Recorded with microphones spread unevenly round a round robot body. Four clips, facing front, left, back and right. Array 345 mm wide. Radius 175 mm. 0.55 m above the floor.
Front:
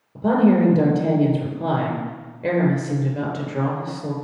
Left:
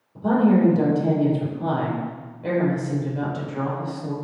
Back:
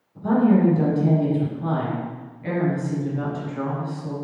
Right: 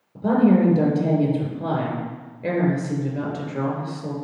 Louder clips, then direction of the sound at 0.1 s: Right 1 dB, front 2 dB; 40° right.